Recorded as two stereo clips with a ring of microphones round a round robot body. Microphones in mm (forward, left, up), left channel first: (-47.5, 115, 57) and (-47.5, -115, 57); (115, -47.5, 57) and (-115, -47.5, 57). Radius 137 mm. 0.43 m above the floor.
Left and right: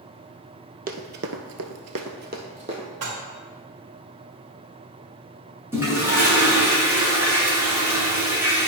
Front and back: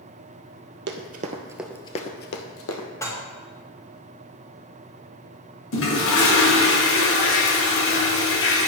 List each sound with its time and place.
0.9 s running footsteps: 140° right, 0.9 m; by 2.9 s 20° right, 1.2 m
3.0 s dishes clattering: 75° right, 1.8 m
5.7 s a toilet flushing: 10° right, 1.8 m